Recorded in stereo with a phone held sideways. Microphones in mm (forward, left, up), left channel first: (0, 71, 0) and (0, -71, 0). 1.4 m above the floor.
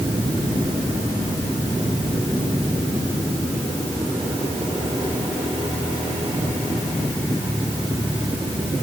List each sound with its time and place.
Only background noise.